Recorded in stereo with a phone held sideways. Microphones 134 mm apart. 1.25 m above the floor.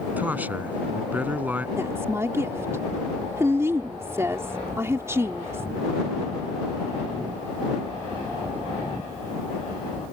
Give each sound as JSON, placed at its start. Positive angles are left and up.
{"t": 0.2, "sound": "a man speaking", "side_deg": -10}
{"t": 1.8, "sound": "a woman speaking", "side_deg": -20}